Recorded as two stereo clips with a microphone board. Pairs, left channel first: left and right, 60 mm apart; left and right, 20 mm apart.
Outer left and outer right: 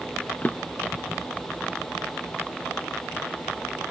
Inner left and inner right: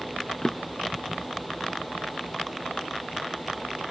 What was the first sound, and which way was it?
A drawer, 30° left (ahead or behind).